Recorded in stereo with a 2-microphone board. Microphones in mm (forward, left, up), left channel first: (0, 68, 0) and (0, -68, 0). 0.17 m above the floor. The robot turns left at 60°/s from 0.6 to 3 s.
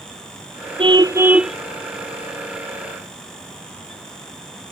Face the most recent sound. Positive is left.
turn(degrees=90)